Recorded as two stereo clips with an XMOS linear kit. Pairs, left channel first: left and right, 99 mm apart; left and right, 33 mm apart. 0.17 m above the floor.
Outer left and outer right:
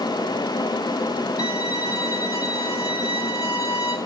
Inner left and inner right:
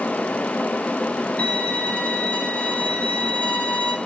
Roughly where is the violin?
Left.